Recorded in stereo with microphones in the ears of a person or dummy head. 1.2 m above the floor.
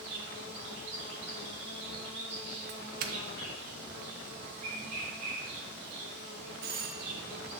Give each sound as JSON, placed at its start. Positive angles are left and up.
{"t": 0.0, "sound": "an insect", "side_deg": -40, "distance_m": 2.5}
{"t": 2.7, "sound": "a doorbell", "side_deg": -45, "distance_m": 0.6}